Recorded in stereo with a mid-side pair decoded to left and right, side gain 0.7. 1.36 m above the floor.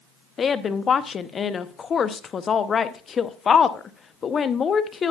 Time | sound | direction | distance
0.4 | a woman speaking | 30° left | 0.7 m